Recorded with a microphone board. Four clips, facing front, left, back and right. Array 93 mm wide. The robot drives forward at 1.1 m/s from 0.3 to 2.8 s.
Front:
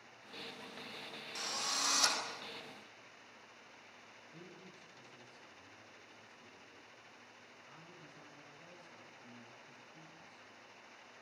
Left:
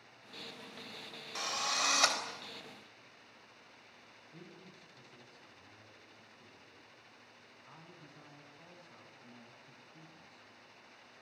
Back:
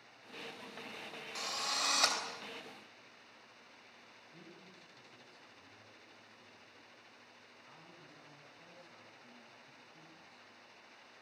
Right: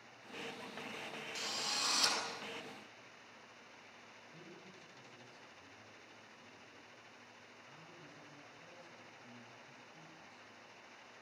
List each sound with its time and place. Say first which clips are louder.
1.4 s a drill: left 9 dB, back 2 dB; 100° left, 4 m; by 2.2 s 115° left, 4.5 m
4.3 s a man speaking: left 2 dB, front 2 dB; 105° left, 8.5 m